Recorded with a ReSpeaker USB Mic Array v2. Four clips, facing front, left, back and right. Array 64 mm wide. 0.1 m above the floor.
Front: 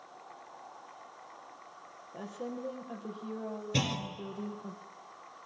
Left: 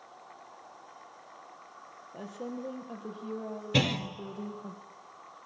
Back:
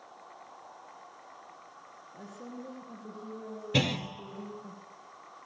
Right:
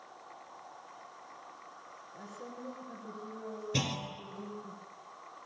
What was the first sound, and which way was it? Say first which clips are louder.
A woman speaking: left 7 dB, front 5 dB; 50° left.